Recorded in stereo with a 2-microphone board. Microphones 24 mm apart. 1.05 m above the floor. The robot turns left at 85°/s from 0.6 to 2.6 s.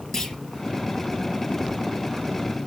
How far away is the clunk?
About 3.5 m.